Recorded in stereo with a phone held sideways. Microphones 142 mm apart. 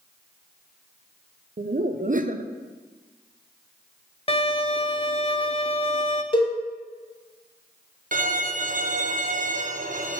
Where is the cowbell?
40° left (ahead or behind), 1.5 m.